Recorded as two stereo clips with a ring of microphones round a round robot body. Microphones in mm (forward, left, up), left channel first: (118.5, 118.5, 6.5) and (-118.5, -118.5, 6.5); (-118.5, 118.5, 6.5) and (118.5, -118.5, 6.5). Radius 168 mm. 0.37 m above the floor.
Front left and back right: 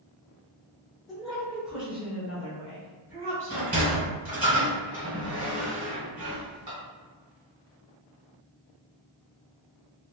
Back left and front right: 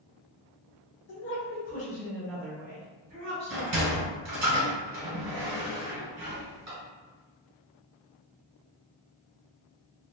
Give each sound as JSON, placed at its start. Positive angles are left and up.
{"t": 1.1, "sound": "a woman speaking", "azimuth_deg": 135, "distance_m": 1.1}
{"t": 3.5, "sound": "a sliding door", "azimuth_deg": -70, "distance_m": 1.6}